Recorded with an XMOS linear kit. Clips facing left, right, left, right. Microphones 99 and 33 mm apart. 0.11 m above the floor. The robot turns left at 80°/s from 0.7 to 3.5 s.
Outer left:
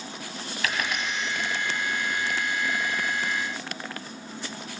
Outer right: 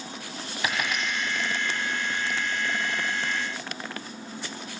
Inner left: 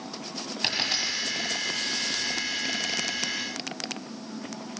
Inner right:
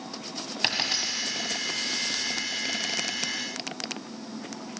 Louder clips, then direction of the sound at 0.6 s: Outer right 1 dB, even; 25° right (ahead or behind).